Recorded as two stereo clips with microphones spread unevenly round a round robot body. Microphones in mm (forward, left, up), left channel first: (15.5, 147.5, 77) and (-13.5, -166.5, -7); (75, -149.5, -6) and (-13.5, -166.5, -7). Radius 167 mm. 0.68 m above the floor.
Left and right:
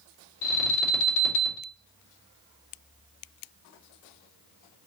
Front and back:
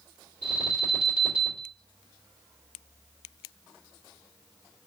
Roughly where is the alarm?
Left.